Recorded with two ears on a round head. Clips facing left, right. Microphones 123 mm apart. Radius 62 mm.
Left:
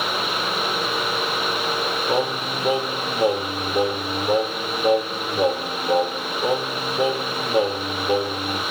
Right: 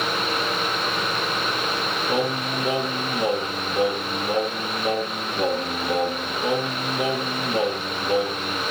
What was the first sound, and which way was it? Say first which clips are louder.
Singing: even; 25° left (ahead or behind).